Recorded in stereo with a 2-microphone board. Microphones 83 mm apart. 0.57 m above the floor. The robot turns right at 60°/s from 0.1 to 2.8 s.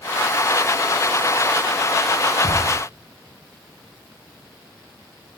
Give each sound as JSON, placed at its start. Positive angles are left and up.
{"t": 2.4, "sound": "a thud", "side_deg": -65, "distance_m": 6.5}